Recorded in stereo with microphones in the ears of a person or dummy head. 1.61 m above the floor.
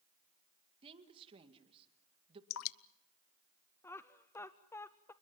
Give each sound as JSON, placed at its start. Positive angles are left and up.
{"t": 0.8, "sound": "a woman speaking", "side_deg": -30, "distance_m": 2.0}
{"t": 2.5, "sound": "dripping", "side_deg": 75, "distance_m": 0.7}
{"t": 3.8, "sound": "laughter", "side_deg": 10, "distance_m": 0.6}